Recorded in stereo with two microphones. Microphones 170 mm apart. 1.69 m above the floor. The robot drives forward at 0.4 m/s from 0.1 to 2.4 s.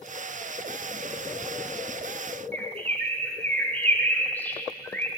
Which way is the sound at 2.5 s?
10° left (ahead or behind).